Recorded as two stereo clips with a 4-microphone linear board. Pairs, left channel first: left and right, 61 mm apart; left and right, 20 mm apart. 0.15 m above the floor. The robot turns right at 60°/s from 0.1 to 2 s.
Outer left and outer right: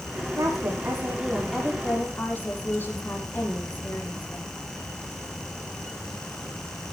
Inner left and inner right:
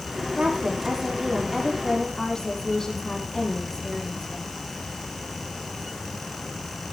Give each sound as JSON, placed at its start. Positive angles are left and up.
{"t": 0.4, "sound": "a woman speaking", "azimuth_deg": -65, "distance_m": 7.0}